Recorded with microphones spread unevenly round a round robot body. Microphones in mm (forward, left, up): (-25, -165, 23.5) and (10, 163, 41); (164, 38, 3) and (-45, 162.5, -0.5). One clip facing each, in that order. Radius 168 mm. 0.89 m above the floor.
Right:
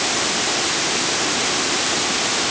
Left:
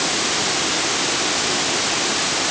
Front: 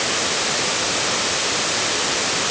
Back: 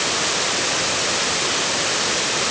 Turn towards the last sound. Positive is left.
No sound to turn to.